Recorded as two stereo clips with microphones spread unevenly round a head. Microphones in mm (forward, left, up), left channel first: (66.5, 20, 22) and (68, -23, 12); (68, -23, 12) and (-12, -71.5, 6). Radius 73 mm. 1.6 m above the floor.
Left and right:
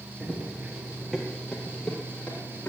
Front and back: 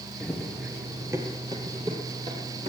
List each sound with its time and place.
0.2 s running footsteps: 40° right, 1.7 m; by 2.7 s 160° left, 3.5 m